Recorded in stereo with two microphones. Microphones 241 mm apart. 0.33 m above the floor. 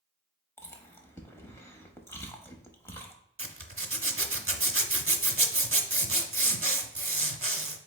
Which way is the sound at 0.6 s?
10° left (ahead or behind).